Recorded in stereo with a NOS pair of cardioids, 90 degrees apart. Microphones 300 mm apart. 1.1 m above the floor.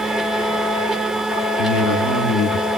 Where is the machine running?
Straight ahead, 1.2 m.